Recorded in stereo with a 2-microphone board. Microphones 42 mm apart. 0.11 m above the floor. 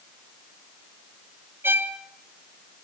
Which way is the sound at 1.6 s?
55° right (ahead or behind).